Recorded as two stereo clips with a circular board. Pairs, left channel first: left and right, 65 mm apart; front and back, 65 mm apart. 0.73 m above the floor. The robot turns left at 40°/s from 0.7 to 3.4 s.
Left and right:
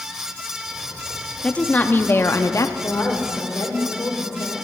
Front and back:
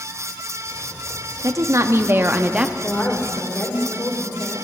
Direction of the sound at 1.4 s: 160° left.